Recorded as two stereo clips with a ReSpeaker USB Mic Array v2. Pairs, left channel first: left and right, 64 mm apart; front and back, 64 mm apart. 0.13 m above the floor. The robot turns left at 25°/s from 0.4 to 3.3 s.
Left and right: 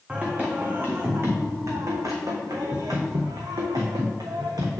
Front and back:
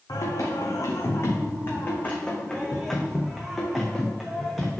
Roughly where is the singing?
Ahead.